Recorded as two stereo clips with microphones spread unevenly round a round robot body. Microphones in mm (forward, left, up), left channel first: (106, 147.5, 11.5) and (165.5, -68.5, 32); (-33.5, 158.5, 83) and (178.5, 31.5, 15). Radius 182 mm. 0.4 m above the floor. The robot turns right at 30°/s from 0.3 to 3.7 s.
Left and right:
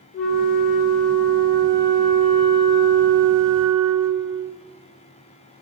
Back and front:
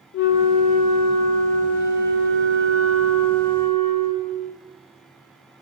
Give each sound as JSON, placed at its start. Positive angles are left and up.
{"t": 0.1, "sound": "a flute", "azimuth_deg": 140, "distance_m": 0.6}